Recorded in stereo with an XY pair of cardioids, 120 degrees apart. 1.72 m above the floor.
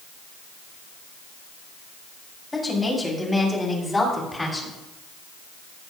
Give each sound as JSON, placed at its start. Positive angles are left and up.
{"t": 2.5, "sound": "a woman speaking", "azimuth_deg": 15, "distance_m": 5.0}